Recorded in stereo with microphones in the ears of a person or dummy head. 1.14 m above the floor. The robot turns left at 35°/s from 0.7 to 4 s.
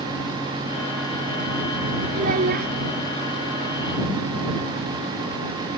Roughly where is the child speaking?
Right.